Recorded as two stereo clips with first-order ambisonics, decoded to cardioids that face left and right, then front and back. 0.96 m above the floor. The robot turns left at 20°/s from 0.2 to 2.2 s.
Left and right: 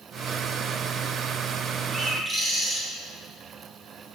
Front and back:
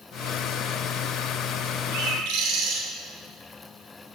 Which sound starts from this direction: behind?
A bird, at 1.9 s.